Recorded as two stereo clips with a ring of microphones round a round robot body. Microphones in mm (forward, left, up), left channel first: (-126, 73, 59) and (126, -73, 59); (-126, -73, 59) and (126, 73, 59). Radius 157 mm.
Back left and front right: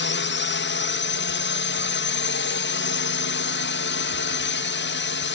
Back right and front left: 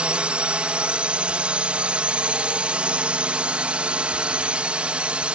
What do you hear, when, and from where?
0.0 s a drone: 115° left